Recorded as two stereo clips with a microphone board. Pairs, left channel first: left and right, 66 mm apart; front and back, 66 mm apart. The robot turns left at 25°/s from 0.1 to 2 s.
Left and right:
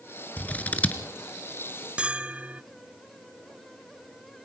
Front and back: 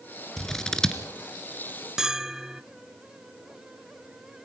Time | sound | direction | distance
0.4 | scissors | 75° left | 1.5 m
2.0 | a bell | 115° right | 0.5 m